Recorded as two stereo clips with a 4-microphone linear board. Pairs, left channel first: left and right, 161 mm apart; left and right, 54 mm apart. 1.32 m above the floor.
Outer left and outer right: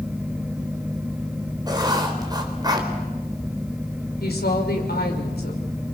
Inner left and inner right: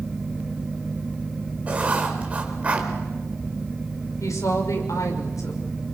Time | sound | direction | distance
1.7 | writing | 25° right (ahead or behind) | 4 m
4.2 | a woman speaking | 75° left (ahead or behind) | 6 m